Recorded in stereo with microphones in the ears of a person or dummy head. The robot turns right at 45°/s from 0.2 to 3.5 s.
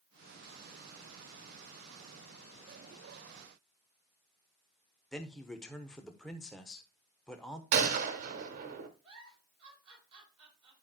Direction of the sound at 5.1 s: Centre (ahead or behind).